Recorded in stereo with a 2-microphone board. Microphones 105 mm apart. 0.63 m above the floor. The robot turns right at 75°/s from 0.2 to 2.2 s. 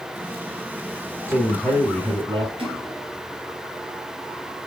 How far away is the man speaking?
About 3.5 m.